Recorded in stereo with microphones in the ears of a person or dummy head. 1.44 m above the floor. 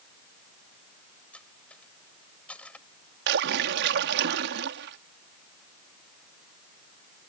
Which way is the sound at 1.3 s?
10° left (ahead or behind).